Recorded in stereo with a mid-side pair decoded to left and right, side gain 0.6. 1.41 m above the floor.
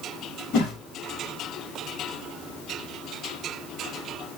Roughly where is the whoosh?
Ahead left.